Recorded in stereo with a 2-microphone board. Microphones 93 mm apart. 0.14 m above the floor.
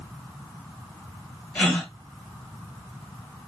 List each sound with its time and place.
1.6 s a gasp: 20° left (ahead or behind), 1.1 m